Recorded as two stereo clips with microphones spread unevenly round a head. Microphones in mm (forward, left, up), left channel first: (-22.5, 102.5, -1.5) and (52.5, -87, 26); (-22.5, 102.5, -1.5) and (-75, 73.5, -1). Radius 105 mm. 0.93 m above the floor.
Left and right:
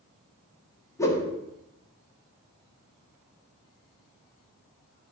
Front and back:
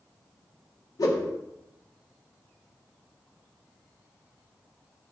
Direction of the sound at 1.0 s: 35° left.